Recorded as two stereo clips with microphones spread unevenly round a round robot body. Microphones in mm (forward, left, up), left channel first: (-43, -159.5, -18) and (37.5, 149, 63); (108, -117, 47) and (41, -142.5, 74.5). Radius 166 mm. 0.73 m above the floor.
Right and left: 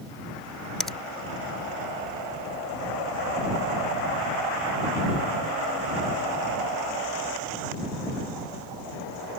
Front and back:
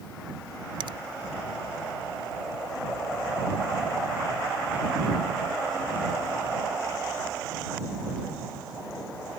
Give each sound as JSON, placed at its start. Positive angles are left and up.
{"t": 0.8, "sound": "a finger snap", "azimuth_deg": 170}